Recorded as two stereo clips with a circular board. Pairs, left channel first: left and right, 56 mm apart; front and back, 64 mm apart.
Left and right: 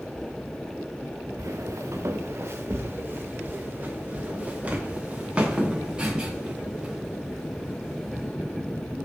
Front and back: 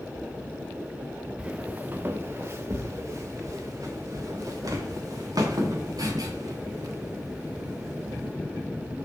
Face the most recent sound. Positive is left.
turn(degrees=-170)